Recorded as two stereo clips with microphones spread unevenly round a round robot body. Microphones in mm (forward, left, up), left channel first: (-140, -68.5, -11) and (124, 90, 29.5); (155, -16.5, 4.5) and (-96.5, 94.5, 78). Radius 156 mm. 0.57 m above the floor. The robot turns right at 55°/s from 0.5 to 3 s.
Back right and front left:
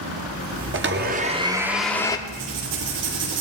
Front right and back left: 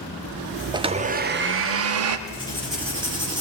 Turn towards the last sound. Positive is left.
turn(degrees=85)